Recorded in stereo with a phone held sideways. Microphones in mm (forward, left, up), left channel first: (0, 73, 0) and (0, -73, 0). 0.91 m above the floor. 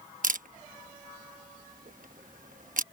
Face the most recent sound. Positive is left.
turn(degrees=-70)  # may be behind; listen again after turning